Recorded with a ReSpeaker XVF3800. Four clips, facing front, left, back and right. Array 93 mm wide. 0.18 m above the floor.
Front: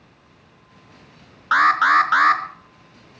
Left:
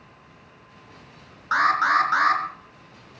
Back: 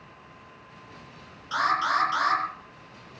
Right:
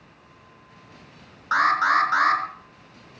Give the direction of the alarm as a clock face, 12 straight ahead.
12 o'clock.